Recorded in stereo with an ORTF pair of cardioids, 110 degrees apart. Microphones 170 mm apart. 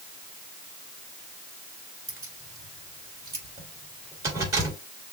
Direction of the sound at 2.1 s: 20° right.